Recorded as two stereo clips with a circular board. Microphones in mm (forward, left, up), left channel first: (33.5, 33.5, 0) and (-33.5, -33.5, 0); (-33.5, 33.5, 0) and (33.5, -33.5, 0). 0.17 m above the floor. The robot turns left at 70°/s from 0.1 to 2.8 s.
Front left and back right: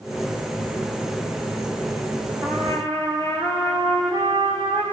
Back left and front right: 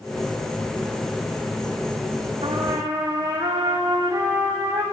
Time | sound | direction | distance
2.4 | a trumpet | 70° right | 7.5 m